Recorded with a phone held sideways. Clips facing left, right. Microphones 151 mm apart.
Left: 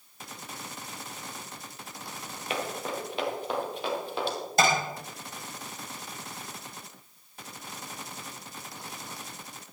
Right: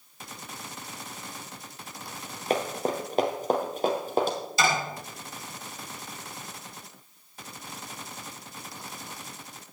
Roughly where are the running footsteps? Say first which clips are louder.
Right 6 dB; right.